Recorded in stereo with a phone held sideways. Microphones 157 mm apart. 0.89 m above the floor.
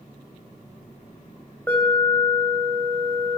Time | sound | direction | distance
1.7 | an alarm | 10° left (ahead or behind) | 5 m